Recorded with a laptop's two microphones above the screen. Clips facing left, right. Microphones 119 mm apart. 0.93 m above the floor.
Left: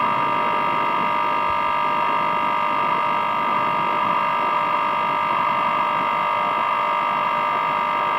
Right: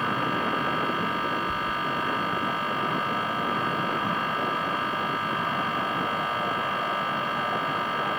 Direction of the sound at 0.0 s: 70° left (ahead or behind).